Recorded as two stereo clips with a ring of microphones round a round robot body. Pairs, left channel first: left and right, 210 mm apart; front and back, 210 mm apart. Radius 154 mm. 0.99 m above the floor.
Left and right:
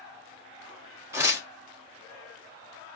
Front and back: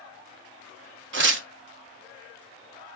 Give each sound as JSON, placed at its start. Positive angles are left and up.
{"t": 1.1, "sound": "tearing paper", "azimuth_deg": -170, "distance_m": 0.8}